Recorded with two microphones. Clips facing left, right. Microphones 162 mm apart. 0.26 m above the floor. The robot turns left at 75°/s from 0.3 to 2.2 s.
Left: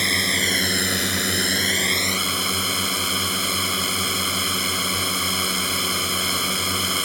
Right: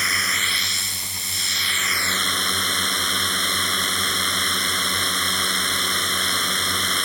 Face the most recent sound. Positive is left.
turn(degrees=5)